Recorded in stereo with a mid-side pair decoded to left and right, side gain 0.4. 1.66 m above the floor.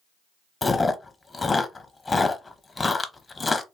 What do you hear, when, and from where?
0.6 s chewing: 30° left, 0.7 m